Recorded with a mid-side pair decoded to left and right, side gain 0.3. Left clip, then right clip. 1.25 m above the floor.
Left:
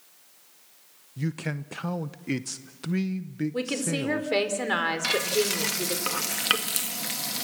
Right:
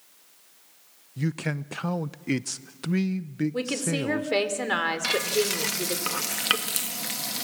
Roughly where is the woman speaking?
Ahead.